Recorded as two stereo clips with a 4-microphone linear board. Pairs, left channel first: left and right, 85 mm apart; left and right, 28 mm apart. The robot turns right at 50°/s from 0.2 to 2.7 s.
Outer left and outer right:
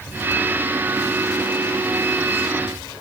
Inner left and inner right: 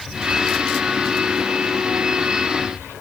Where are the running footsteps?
No running footsteps in this recording.